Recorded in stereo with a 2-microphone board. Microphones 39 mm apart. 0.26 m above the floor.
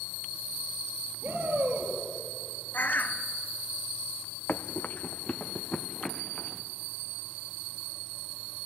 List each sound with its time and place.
1.2 s a shout: 60° right (ahead or behind), 5.5 m
2.7 s a bird: 55° left (ahead or behind), 0.8 m
4.5 s running footsteps: 65° left (ahead or behind), 0.6 m; by 6.6 s 15° left (ahead or behind), 1.4 m